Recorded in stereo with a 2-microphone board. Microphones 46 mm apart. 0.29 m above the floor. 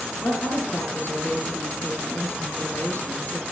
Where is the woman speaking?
50° left (ahead or behind), 4 m.